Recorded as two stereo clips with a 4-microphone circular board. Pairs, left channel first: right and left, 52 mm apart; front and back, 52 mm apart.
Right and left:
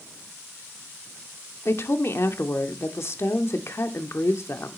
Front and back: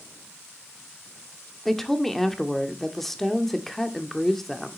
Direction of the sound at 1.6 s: 85° right.